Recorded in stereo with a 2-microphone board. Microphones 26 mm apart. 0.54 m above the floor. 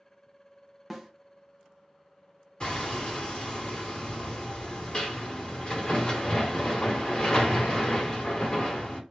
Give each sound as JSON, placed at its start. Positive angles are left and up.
{"t": 0.9, "sound": "a snare drum", "side_deg": 0, "distance_m": 0.8}
{"t": 2.6, "sound": "hammering", "side_deg": 35, "distance_m": 1.4}